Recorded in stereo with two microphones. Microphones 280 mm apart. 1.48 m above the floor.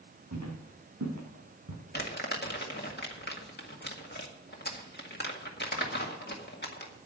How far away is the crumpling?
About 1.9 m.